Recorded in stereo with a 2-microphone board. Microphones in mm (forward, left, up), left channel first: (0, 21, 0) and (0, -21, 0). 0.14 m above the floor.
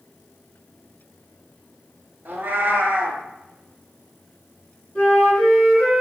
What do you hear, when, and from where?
2.2 s a cat meowing: 50° right (ahead or behind), 0.6 m
5.0 s a flute: 30° left (ahead or behind), 1.9 m